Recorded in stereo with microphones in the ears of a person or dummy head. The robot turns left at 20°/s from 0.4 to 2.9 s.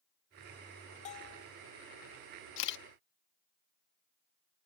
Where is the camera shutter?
70° left (ahead or behind); by 2.8 s 65° left (ahead or behind).